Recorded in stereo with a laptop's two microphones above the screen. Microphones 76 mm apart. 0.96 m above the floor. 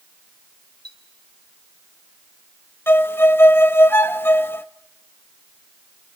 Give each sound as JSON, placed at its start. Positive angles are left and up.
{"t": 0.8, "sound": "a clink", "side_deg": -80, "distance_m": 3.0}
{"t": 2.9, "sound": "a violin", "side_deg": 30, "distance_m": 0.6}